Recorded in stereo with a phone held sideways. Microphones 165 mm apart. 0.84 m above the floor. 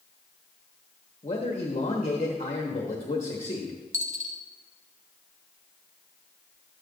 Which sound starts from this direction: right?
A dropped coin, at 3.9 s.